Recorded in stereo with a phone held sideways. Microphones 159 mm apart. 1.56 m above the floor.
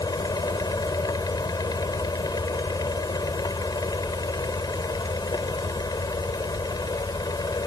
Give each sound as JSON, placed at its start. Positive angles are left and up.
{"t": 0.0, "sound": "a fan", "side_deg": 25}